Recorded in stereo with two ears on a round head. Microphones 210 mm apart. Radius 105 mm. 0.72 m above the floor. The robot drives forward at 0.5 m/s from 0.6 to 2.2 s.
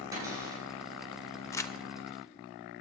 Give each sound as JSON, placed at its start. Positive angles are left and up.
{"t": 0.1, "sound": "a cupboard door", "side_deg": -15, "distance_m": 9.0}
{"t": 1.5, "sound": "crumpling", "side_deg": 10, "distance_m": 0.8}